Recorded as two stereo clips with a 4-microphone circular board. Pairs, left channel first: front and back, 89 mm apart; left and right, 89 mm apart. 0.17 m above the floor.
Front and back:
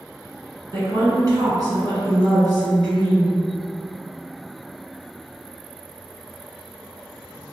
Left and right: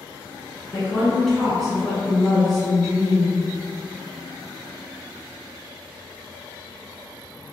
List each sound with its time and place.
0.7 s a woman speaking: straight behind, 1.8 m